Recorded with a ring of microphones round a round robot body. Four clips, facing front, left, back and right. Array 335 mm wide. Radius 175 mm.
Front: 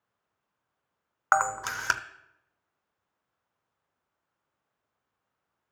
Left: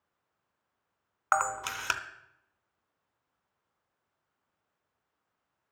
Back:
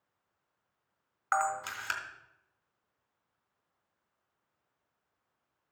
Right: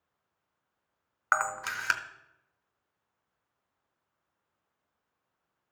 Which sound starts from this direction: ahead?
A camera shutter, at 1.3 s.